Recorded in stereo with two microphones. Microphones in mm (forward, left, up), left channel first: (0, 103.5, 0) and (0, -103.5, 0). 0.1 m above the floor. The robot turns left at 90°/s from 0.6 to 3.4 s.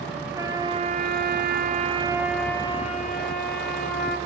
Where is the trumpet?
20° right, 0.5 m; by 4.2 s 85° left, 0.5 m.